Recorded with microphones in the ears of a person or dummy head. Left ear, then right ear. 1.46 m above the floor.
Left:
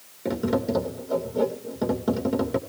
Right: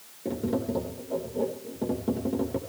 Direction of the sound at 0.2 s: 55° left (ahead or behind).